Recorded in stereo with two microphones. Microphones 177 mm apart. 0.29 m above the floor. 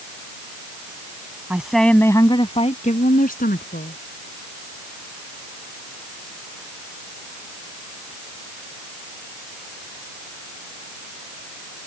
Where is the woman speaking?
10° right (ahead or behind); by 4.0 s 65° left (ahead or behind).